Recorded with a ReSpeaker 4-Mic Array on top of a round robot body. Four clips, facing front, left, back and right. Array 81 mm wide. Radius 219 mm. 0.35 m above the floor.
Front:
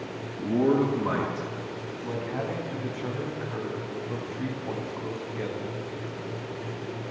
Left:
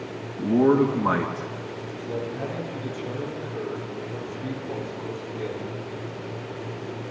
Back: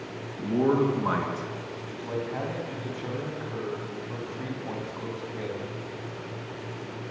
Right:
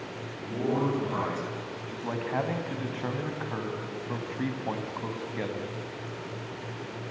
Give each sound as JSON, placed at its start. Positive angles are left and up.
{"t": 0.4, "sound": "a man speaking", "azimuth_deg": 100, "distance_m": 5.0}
{"t": 1.9, "sound": "a man speaking", "azimuth_deg": -85, "distance_m": 5.0}